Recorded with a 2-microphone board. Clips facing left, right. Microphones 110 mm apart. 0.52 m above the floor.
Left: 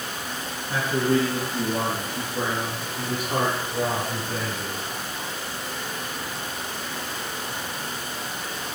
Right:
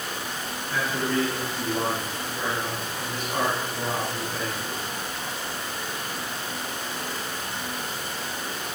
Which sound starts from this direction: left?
A man speaking, at 0.7 s.